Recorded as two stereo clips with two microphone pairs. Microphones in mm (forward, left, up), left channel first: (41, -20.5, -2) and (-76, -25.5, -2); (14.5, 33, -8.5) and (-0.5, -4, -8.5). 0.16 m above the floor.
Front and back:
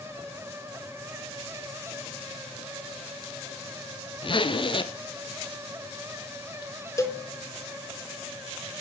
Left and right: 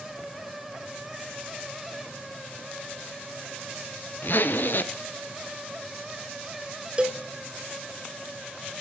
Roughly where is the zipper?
Ahead left.